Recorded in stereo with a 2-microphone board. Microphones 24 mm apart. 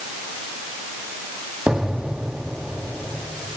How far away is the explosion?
About 3 m.